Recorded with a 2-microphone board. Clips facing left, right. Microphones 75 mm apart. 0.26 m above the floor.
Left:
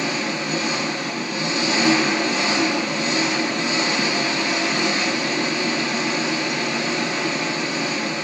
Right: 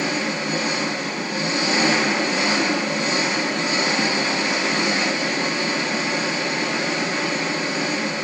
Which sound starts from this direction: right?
An engine running, at 0.0 s.